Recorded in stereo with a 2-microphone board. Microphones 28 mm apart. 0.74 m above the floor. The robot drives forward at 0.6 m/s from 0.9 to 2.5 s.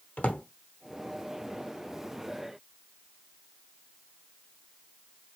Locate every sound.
0.2 s a drawer: 60° left (ahead or behind), 0.7 m